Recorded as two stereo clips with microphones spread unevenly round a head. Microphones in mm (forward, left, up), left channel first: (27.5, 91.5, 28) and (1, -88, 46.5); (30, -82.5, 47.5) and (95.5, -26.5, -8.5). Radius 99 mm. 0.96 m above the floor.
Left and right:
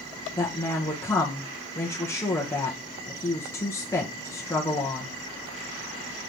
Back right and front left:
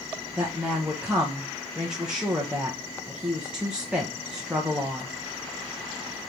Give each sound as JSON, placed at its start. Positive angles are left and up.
{"t": 0.4, "sound": "a woman speaking", "azimuth_deg": 20, "distance_m": 0.9}